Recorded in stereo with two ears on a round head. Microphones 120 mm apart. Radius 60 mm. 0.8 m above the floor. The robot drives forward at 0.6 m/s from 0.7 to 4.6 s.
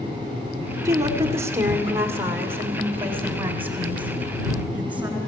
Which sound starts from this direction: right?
A woman speaking, at 0.8 s.